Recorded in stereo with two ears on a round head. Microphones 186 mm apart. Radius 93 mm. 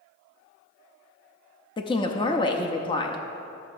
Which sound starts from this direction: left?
A woman speaking, at 1.8 s.